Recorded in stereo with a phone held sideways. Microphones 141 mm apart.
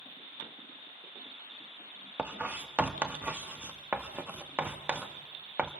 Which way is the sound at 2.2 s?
10° right (ahead or behind).